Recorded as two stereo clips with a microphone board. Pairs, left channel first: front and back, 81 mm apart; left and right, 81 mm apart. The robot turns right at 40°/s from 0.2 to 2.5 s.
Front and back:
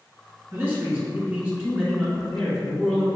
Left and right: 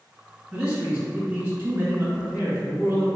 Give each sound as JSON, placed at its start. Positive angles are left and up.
{"t": 0.5, "sound": "a man speaking", "azimuth_deg": -160, "distance_m": 1.9}